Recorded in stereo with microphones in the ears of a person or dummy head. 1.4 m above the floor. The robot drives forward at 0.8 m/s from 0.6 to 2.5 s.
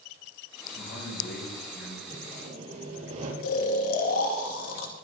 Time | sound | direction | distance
0.8 | a man speaking | 70° left (ahead or behind) | 7 m
2.1 | sawing | 40° right (ahead or behind) | 4.5 m
3.4 | snoring | 85° left | 2 m